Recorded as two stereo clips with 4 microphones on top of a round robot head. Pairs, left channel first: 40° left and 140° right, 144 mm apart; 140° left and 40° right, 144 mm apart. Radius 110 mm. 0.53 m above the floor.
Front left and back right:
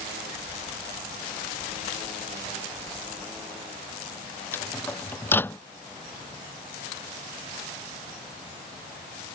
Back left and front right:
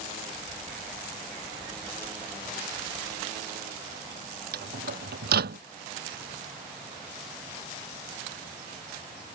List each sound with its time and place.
4.5 s a microwave: 35° right